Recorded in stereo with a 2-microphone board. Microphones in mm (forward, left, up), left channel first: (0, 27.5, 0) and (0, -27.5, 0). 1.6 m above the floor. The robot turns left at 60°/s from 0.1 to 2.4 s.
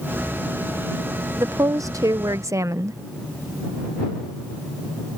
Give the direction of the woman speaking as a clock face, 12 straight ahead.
2 o'clock.